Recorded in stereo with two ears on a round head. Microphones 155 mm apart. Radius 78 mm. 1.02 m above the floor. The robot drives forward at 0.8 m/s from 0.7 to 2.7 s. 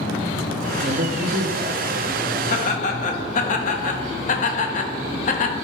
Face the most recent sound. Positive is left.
turn(degrees=45)  # may be behind; listen again after turning